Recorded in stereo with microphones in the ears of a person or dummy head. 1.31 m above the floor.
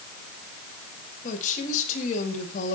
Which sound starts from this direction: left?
A woman speaking, at 1.2 s.